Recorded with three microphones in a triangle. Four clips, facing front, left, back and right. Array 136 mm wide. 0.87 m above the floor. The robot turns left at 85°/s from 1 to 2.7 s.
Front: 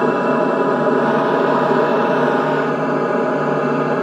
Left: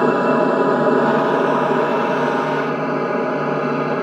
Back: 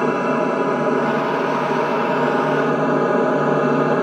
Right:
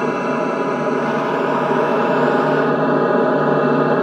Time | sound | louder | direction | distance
0.0 | an aircraft | left 4 dB, front 3 dB | 55° left | ?